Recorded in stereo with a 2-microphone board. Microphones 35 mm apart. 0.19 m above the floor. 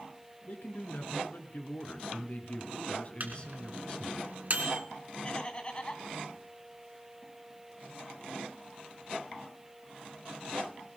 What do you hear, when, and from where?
0.5 s a man speaking: 60° left (ahead or behind), 2.5 m; by 4.2 s 20° left (ahead or behind), 1.8 m
3.2 s a microwave: 55° right (ahead or behind), 2 m
5.2 s laughter: 25° left (ahead or behind), 1.8 m